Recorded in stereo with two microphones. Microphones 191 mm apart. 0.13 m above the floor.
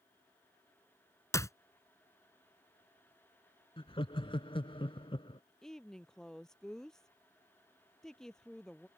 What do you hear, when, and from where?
1.3 s a clap: 15° left (ahead or behind)
3.8 s laughter: 30° left (ahead or behind)
5.6 s a woman speaking: centre (ahead or behind)